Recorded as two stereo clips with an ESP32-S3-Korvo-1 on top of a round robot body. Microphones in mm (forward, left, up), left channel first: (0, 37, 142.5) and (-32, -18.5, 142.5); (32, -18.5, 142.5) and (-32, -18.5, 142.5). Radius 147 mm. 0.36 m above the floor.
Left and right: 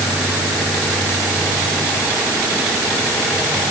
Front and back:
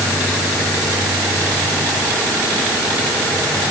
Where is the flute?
I don't hear a flute.